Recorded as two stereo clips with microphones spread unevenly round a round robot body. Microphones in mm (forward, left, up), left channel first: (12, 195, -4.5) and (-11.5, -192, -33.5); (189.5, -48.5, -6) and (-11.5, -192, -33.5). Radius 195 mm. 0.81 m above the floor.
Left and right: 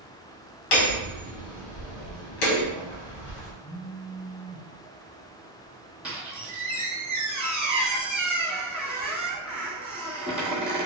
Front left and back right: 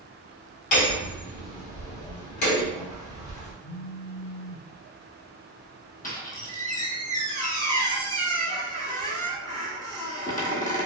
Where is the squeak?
5° right, 1.2 m.